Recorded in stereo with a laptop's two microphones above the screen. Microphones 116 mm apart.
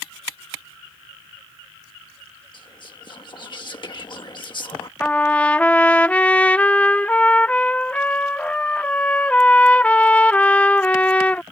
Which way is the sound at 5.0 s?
15° left (ahead or behind).